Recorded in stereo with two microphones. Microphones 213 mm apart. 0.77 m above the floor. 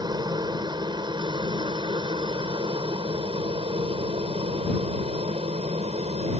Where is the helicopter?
20° right (ahead or behind); by 6.4 s 30° right (ahead or behind).